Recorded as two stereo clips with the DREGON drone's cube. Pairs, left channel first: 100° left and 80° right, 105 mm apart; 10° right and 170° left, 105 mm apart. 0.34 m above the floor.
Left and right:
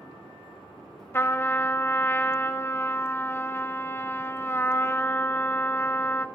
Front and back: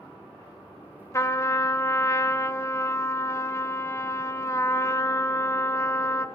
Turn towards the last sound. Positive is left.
turn(degrees=40)